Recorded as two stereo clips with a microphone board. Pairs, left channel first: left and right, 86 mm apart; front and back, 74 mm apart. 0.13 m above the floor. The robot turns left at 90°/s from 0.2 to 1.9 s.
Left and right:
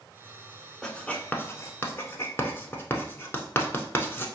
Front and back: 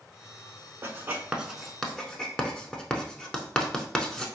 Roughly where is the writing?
Behind.